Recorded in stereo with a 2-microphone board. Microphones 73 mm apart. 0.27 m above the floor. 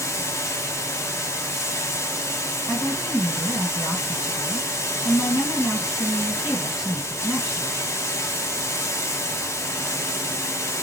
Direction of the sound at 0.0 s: 40° left (ahead or behind).